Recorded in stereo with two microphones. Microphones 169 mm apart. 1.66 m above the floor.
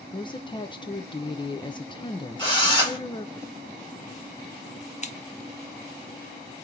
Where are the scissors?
40° left (ahead or behind), 0.7 m.